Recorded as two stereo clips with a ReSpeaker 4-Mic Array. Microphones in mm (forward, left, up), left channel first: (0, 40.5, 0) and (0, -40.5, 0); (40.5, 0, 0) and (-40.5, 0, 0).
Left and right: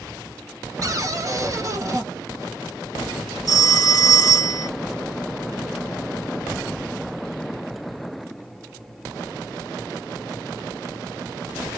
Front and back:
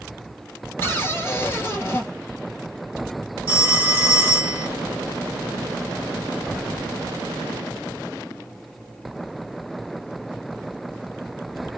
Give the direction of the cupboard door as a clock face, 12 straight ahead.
2 o'clock.